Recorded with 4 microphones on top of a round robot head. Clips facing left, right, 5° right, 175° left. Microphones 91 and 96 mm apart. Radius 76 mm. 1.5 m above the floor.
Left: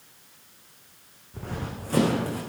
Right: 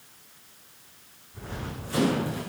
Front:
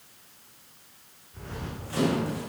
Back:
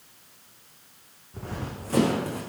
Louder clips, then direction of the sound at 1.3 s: Left 2 dB, back 3 dB; 125° left.